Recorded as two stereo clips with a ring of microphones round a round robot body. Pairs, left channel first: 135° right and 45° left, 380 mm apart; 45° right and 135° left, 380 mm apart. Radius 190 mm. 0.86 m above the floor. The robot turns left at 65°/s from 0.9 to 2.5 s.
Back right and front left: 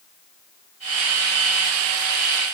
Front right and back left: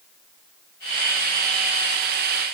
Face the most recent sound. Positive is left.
No sound to turn to.